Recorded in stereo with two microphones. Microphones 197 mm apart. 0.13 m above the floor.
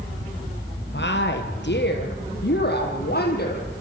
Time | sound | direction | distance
0.9 | a woman speaking | 60° left (ahead or behind) | 3 m